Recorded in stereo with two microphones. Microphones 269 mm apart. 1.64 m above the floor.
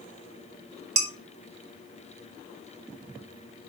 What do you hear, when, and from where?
1.0 s dishes clattering: 55° right (ahead or behind), 1.5 m